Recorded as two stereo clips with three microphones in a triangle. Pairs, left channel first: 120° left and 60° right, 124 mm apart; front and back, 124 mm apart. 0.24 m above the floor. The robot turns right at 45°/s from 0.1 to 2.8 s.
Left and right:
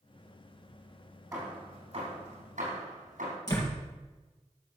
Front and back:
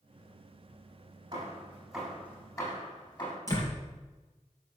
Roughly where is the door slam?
Ahead left.